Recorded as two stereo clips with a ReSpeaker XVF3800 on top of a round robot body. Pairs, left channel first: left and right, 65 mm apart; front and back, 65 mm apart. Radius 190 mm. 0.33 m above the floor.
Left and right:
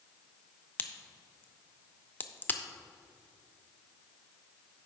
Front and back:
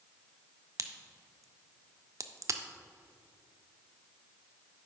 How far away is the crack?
About 0.6 m.